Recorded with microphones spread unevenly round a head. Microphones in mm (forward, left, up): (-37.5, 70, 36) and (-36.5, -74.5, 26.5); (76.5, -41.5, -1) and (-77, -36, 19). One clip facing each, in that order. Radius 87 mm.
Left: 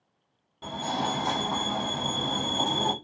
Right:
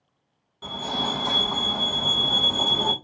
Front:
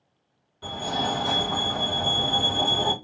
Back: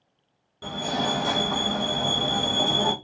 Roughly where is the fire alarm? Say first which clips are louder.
Even, back 1 dB; behind left.